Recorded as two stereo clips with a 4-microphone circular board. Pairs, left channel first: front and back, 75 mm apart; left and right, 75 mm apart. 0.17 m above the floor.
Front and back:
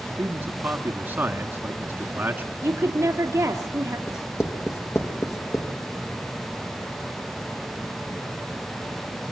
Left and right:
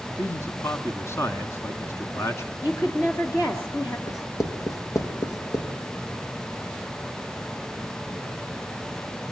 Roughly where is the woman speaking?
Behind left.